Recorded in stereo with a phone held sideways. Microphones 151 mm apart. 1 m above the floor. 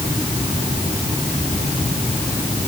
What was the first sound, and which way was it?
Only background noise.